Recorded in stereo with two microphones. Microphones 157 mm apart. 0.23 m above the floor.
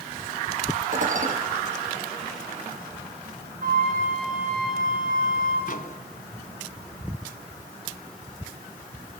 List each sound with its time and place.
0.9 s dishes clattering: 55° right (ahead or behind), 5 m
3.6 s a flute: 60° right (ahead or behind), 10 m
5.7 s a microwave: 60° left (ahead or behind), 1.4 m